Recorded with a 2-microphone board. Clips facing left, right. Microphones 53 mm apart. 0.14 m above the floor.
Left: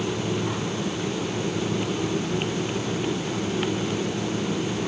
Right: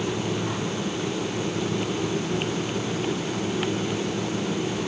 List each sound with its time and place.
Only background noise.